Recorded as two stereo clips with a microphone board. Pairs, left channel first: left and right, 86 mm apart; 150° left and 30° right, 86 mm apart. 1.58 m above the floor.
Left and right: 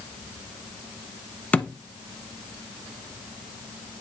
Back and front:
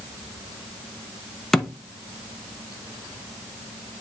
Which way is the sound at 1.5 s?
80° left.